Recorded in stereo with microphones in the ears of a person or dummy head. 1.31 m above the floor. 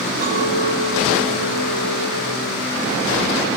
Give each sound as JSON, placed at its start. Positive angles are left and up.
{"t": 0.2, "sound": "a clink", "side_deg": -45, "distance_m": 1.7}